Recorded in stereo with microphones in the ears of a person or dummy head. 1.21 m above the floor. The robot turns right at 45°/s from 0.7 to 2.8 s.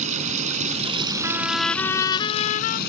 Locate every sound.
0.0 s running water: 40° right; by 2.9 s 55° left
1.2 s a trumpet: 15° right; by 2.8 s 55° left